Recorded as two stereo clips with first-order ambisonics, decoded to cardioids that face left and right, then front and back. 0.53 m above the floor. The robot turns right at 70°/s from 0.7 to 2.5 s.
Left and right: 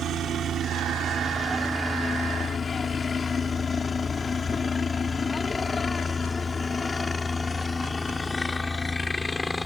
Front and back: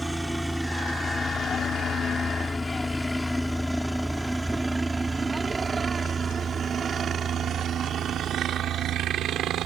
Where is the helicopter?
95° right; by 9.7 s 165° left.